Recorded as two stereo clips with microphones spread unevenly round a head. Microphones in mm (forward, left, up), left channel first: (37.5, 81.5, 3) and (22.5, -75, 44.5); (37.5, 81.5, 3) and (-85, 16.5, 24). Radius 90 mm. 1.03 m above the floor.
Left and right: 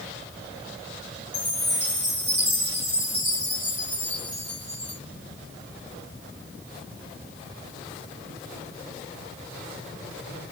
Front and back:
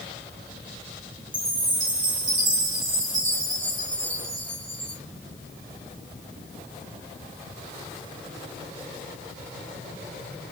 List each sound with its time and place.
1.3 s a chime: straight behind, 2.0 m